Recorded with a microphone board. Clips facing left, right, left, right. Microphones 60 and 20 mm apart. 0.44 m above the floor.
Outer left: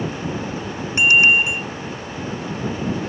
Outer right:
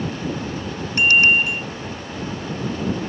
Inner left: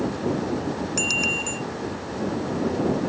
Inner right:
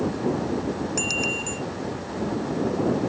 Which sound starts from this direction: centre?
A bicycle bell, at 1.0 s.